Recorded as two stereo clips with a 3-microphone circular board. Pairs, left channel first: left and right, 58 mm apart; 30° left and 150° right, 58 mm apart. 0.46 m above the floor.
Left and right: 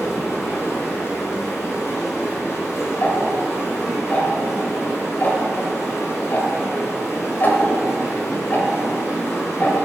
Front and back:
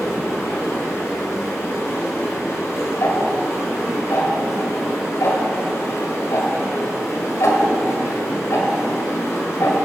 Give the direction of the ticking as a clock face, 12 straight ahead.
11 o'clock.